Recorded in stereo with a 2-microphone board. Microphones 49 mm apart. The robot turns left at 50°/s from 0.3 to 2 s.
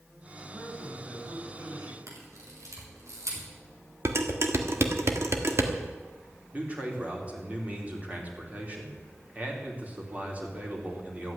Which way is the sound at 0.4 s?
10° left.